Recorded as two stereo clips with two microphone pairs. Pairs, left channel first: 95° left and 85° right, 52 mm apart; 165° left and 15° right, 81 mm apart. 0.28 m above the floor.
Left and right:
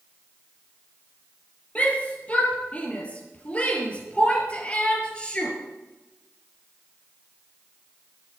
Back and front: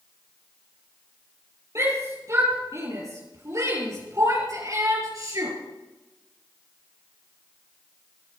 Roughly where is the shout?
Ahead left.